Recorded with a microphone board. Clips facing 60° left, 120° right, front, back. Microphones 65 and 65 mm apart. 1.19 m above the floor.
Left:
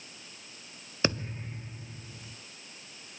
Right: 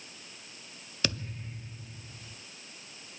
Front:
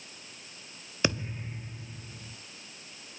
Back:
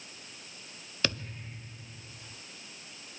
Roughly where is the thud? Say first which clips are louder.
Left 5 dB, front 4 dB; ahead left.